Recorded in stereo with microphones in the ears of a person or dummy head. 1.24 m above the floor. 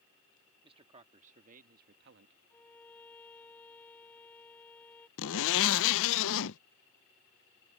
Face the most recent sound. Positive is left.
turn(degrees=70)  # may be behind; listen again after turning